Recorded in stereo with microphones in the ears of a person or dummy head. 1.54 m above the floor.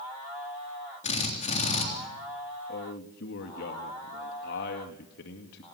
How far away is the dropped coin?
No dropped coin in this recording.